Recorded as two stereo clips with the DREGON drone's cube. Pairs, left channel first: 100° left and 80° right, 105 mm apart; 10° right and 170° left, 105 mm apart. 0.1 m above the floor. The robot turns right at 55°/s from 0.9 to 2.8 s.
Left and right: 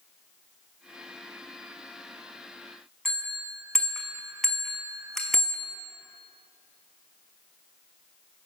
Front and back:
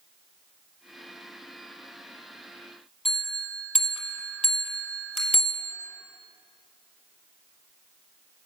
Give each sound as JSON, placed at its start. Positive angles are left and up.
{"t": 3.0, "sound": "a bell", "azimuth_deg": 15, "distance_m": 1.3}